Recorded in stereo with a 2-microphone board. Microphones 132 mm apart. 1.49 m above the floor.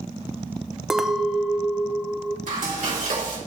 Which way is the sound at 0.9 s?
5° right (ahead or behind).